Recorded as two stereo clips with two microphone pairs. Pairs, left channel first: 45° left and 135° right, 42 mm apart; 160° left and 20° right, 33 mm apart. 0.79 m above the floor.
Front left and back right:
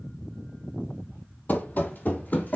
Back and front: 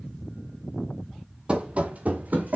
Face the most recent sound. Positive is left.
turn(degrees=5)